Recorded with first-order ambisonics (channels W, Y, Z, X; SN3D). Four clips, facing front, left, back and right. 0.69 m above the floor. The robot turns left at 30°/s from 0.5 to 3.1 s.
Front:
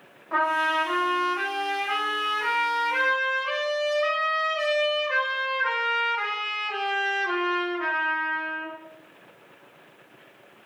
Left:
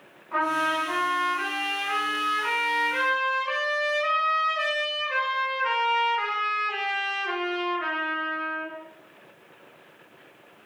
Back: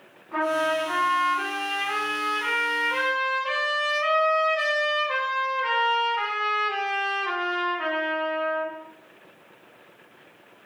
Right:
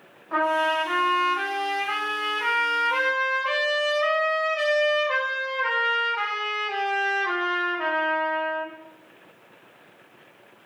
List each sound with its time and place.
0.3 s a trumpet: 45° right, 1.1 m; by 8.7 s 125° right, 1.1 m